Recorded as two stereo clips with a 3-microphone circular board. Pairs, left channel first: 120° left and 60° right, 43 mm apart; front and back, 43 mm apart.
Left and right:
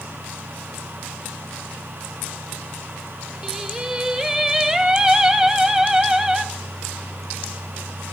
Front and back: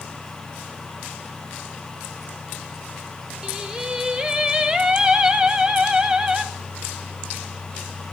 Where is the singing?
120° right, 0.8 m.